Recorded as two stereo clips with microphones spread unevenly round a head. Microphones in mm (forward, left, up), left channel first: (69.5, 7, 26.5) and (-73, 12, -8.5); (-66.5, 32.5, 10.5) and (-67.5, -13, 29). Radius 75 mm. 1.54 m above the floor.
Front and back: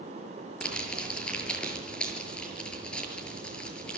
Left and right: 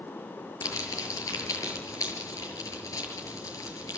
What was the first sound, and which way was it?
Crumpling, 80° left.